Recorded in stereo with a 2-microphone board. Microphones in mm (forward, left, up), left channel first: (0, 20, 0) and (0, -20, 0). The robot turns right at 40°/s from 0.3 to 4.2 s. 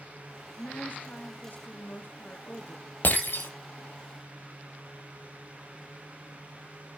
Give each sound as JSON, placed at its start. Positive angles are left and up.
{"t": 0.6, "sound": "a woman speaking", "azimuth_deg": 50, "distance_m": 2.0}
{"t": 3.0, "sound": "breaking glass", "side_deg": 45, "distance_m": 2.0}